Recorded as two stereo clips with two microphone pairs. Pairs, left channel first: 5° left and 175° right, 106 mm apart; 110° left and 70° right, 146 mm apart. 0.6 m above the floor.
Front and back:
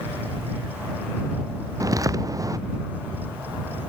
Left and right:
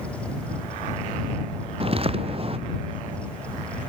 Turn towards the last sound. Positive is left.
turn(degrees=-115)